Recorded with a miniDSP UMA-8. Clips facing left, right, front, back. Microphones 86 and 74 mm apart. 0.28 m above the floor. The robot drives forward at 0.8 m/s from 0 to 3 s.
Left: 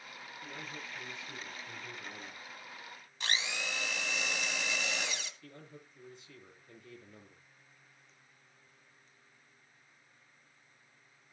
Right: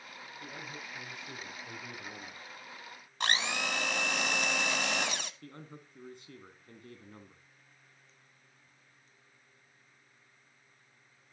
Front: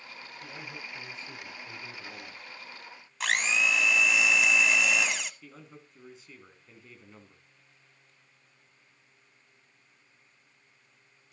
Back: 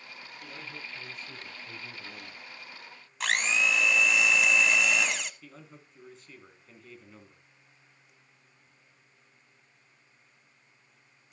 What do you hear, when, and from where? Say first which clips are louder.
0.4 s a man speaking: right 1 dB, even; 50° right, 8 m; by 2.4 s 65° right, 7 m
3.2 s a blender: right 5 dB, even; 90° right, 0.6 m
5.4 s a man speaking: right 3 dB, front 1 dB; 85° right, 2.5 m